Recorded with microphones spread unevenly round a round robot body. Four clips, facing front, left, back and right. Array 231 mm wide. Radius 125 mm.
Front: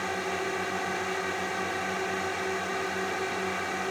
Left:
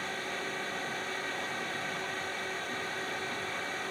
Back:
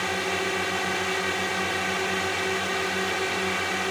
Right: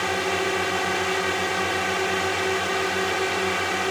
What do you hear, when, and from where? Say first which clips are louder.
0.0 s a drone: right 13 dB, back 3 dB; 115° right